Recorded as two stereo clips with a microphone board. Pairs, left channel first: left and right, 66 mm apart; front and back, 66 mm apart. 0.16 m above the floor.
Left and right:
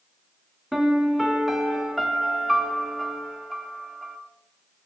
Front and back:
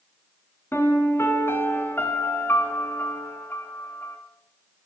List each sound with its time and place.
0.7 s a piano: 5° right, 1.3 m